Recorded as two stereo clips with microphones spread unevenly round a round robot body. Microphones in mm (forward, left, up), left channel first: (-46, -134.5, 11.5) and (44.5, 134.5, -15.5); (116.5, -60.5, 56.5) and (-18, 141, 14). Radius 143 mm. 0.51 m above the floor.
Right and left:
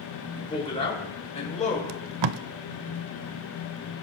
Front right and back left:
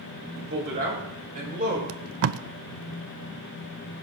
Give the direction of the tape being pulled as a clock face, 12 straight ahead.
9 o'clock.